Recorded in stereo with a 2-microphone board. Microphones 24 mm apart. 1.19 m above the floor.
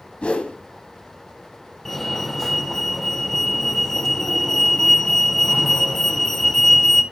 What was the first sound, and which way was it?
A whoosh, 50° left (ahead or behind).